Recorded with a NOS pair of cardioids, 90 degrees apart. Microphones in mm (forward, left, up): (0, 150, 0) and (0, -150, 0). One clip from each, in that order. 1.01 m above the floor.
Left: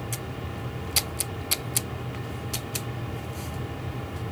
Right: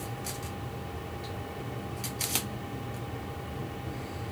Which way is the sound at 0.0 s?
35° left.